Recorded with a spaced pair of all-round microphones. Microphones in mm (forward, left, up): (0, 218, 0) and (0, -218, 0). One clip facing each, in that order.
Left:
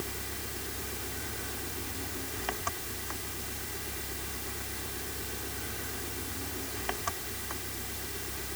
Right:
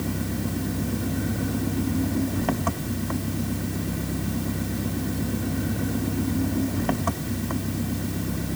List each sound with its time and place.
0.0 s an engine running: 65° right (ahead or behind)